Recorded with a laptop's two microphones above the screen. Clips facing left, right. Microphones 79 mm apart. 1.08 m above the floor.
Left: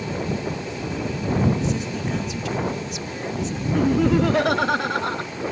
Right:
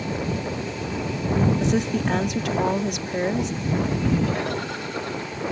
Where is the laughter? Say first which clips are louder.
Left 6 dB; 70° left (ahead or behind).